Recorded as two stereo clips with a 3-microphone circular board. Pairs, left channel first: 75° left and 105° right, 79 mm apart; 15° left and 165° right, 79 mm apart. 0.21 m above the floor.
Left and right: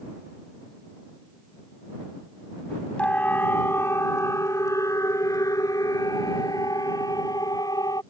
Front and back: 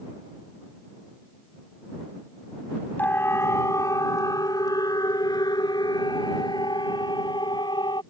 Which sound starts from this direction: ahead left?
A siren, at 3.0 s.